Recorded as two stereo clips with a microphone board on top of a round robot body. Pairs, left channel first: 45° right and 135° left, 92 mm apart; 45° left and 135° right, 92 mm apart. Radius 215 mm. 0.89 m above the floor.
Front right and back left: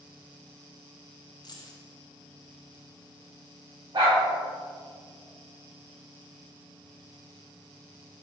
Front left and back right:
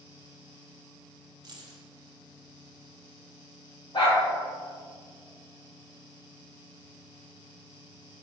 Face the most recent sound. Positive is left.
turn(degrees=90)